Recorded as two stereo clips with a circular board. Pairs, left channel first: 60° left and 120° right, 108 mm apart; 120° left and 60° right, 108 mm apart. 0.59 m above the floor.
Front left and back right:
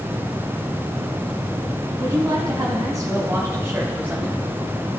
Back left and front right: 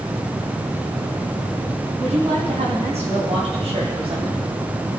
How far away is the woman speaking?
About 4.5 m.